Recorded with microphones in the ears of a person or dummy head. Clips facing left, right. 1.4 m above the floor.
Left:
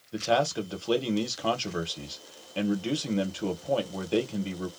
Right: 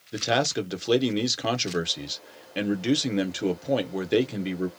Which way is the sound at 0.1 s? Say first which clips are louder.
Even; 25° right (ahead or behind).